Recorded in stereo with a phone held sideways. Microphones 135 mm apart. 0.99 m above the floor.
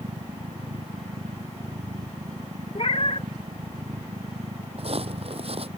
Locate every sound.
0.0 s a machine running: 80° right
2.8 s a cat meowing: 55° left (ahead or behind)
4.8 s footsteps: 55° right (ahead or behind)